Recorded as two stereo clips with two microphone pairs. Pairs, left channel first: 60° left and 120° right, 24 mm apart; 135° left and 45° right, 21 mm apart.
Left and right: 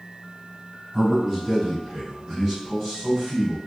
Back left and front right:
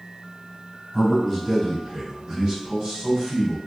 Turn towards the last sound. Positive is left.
turn(degrees=-55)